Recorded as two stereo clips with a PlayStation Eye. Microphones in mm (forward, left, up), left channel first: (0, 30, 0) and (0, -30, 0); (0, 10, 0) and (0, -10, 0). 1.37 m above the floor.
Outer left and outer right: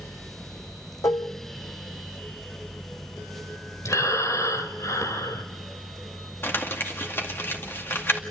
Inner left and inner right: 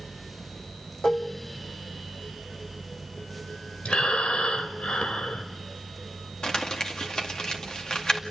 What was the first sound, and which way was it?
Dishes clattering, 60° left (ahead or behind).